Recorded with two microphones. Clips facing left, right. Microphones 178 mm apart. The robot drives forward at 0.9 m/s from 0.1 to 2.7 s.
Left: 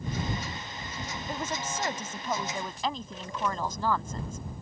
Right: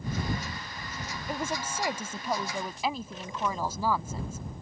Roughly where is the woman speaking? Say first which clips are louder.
Right 2 dB; centre.